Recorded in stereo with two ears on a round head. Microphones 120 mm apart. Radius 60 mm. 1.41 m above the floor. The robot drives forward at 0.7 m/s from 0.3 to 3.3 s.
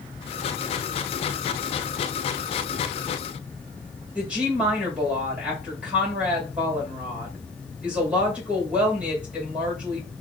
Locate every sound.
4.2 s a woman speaking: 10° right (ahead or behind), 1.9 m